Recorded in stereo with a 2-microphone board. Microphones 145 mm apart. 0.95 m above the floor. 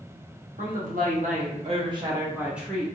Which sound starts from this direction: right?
A woman speaking, at 0.6 s.